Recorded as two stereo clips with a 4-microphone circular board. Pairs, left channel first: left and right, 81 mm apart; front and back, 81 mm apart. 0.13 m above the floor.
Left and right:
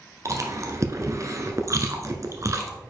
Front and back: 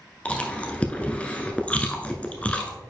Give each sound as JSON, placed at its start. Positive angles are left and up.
{"t": 0.2, "sound": "chewing", "azimuth_deg": -65, "distance_m": 0.8}